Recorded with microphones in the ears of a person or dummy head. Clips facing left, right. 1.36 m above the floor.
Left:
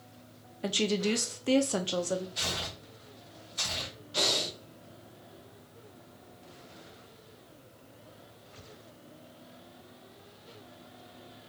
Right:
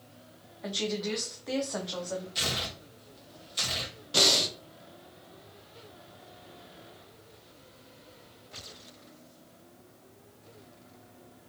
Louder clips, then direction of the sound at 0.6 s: Left 4 dB; 45° left (ahead or behind).